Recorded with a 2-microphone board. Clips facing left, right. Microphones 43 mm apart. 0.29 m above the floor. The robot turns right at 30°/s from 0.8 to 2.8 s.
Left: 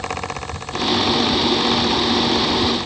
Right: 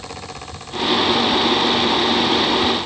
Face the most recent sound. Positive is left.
No sound to turn to.